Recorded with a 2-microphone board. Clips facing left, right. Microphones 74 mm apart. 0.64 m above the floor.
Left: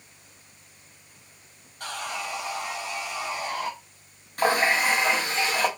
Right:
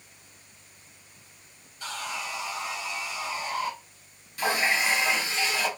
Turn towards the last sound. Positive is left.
turn(degrees=50)  # may be behind; listen again after turning